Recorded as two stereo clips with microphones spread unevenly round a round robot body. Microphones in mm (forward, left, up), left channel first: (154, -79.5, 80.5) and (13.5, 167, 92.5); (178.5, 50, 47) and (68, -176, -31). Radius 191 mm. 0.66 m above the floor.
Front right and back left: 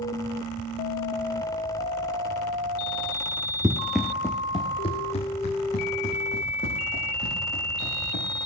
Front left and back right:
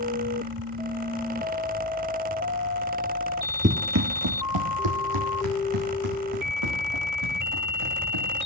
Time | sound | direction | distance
3.6 | running footsteps | 175° left | 0.6 m